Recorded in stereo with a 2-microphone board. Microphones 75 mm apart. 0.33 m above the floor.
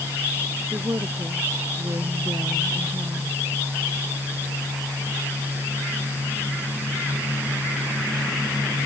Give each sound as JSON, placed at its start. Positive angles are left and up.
{"t": 0.7, "sound": "a woman speaking", "side_deg": -45}